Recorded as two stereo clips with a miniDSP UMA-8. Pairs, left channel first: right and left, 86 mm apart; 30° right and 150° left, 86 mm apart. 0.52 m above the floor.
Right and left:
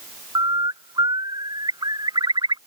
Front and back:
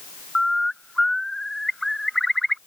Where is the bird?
55° left.